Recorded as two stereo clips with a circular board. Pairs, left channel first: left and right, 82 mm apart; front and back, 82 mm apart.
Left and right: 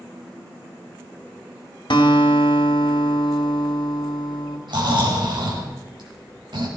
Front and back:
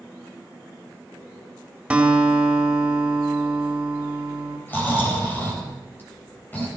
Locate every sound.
1.9 s a guitar: 105° left, 2 m
4.7 s snoring: 65° right, 4.5 m